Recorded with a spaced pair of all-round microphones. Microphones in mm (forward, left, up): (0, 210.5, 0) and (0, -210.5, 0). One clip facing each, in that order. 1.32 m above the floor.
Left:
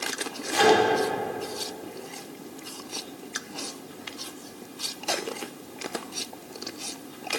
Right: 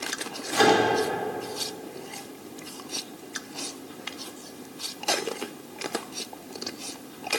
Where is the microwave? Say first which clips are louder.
Left 1 dB; 60° right (ahead or behind), 1.9 m.